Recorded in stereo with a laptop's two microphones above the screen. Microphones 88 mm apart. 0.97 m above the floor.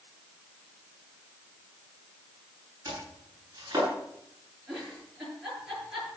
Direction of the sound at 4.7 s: 5° right (ahead or behind).